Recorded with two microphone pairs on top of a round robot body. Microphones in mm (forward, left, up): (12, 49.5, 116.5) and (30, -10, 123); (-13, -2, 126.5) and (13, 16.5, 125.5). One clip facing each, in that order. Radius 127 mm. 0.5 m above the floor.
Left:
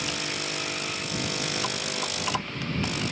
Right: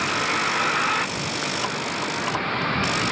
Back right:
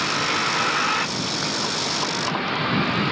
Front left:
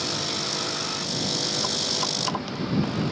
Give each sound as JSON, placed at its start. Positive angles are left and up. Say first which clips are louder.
{"t": 0.0, "sound": "a vehicle", "louder": "right 9 dB, back right 7 dB", "azimuth_deg": -105}